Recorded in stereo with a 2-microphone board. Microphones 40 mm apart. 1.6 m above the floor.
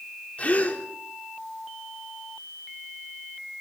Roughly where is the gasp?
Left.